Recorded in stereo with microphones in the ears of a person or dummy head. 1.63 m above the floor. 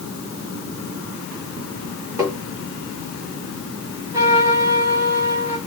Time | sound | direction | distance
2.2 | tapping | 20° right (ahead or behind) | 3 m
4.1 | a trumpet | 15° right (ahead or behind) | 3.5 m